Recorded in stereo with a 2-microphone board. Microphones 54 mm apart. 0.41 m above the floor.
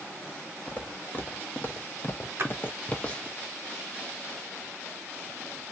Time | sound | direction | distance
0.7 | footsteps | 30° left (ahead or behind) | 1.2 m
2.4 | a splash | 50° right (ahead or behind) | 1.1 m